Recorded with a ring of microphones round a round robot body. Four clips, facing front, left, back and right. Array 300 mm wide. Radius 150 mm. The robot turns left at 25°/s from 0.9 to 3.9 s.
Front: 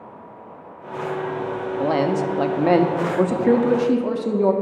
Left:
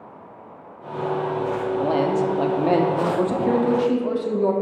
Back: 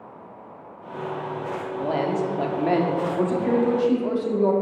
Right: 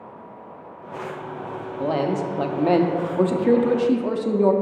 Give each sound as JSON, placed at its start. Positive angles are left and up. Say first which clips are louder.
{"t": 1.8, "sound": "a man speaking", "louder": "left 1 dB, front 4 dB", "azimuth_deg": 10, "distance_m": 0.6}